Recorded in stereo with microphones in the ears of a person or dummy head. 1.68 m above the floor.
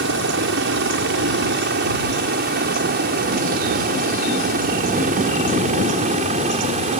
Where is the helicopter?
55° right (ahead or behind); by 7.0 s 35° right (ahead or behind).